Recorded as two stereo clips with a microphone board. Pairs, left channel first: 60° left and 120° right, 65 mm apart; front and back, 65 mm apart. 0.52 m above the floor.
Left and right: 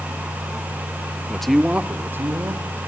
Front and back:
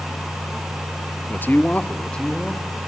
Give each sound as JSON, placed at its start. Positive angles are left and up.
{"t": 1.3, "sound": "a man speaking", "azimuth_deg": 0, "distance_m": 0.9}